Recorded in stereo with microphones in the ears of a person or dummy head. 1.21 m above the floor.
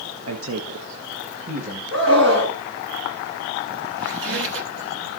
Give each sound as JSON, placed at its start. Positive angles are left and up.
{"t": 0.3, "sound": "a man speaking", "side_deg": -80, "distance_m": 0.8}
{"t": 1.9, "sound": "a scream", "side_deg": -60, "distance_m": 7.5}
{"t": 4.0, "sound": "a squeak", "side_deg": -70, "distance_m": 1.2}